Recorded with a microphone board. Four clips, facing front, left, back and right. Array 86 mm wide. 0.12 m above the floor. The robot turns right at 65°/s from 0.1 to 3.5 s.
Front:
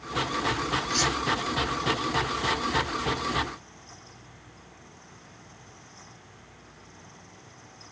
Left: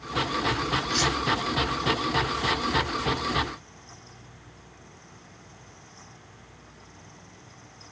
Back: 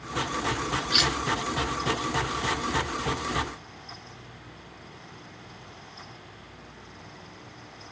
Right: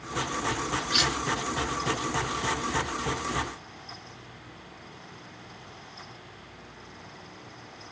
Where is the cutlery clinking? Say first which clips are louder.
Left 2 dB, even; 165° right, 0.8 m; by 1.1 s 150° right, 0.8 m.